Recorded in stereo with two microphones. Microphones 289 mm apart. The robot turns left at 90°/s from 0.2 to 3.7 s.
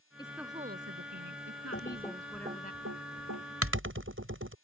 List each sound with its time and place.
0.2 s a woman speaking: 15° left; by 2.7 s 145° left
1.7 s typing on a keyboard: 45° left (ahead or behind); by 4.5 s 45° right (ahead or behind)